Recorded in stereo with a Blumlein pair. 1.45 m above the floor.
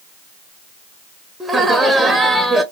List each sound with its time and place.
1.4 s laughter: 10° right, 0.6 m